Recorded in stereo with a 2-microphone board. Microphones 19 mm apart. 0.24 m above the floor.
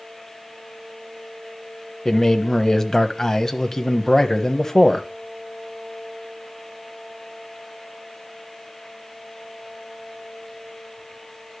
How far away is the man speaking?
About 1.0 m.